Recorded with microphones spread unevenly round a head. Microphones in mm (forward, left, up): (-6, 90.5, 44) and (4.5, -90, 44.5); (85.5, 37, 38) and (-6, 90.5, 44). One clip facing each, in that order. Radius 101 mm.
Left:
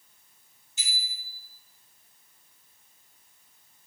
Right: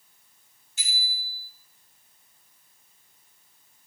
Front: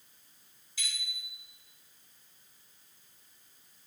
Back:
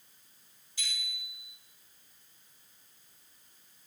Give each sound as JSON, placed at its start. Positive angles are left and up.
{"t": 0.8, "sound": "a bicycle bell", "azimuth_deg": -45, "distance_m": 7.5}